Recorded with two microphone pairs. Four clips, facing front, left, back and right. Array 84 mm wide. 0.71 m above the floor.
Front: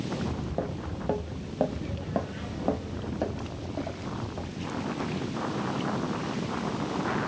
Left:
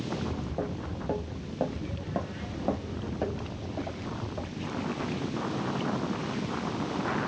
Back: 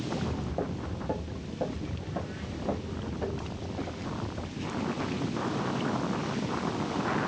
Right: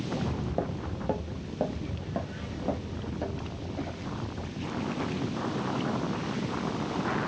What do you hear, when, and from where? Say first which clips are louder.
0.1 s footsteps: right 2 dB, front 1 dB; 85° right, 0.9 m; by 5.0 s 35° left, 2 m